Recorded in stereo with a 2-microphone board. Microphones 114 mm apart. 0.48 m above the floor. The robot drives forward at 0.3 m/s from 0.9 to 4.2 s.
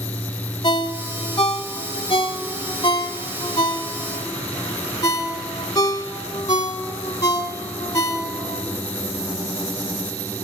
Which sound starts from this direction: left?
A ringtone, at 0.6 s.